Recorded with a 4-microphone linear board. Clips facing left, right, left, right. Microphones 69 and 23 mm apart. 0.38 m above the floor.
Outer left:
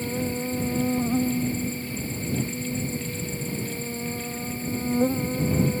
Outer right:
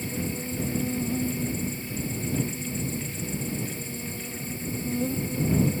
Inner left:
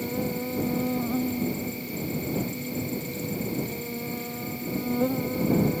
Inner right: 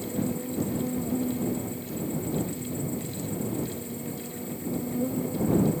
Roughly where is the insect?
Left.